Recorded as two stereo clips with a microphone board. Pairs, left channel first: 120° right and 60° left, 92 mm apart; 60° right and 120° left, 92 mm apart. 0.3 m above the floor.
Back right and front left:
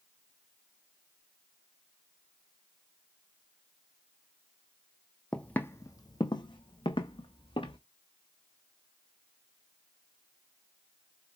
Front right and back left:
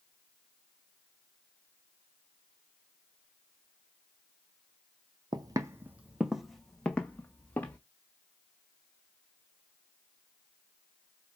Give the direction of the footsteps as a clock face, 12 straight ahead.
7 o'clock.